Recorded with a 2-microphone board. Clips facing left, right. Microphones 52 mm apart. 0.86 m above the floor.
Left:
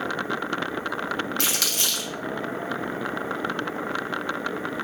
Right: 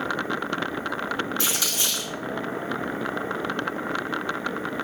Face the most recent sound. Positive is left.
turn(degrees=65)  # may be behind; listen again after turning